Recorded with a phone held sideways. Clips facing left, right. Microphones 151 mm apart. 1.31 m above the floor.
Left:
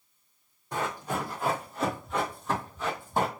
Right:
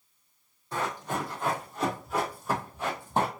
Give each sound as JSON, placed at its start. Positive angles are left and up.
{"t": 0.7, "sound": "running footsteps", "side_deg": 15, "distance_m": 2.0}